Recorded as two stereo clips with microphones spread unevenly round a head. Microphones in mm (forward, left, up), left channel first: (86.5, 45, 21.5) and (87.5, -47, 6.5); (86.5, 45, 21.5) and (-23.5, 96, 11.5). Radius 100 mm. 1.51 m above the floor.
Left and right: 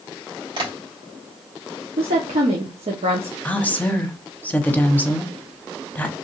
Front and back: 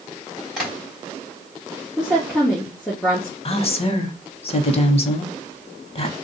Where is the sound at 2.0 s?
110° right, 0.8 m.